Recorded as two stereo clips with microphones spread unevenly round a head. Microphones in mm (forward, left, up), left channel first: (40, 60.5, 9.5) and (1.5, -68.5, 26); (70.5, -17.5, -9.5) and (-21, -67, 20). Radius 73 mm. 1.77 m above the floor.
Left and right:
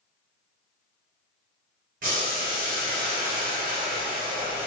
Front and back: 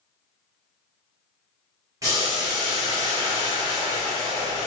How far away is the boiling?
About 1.7 m.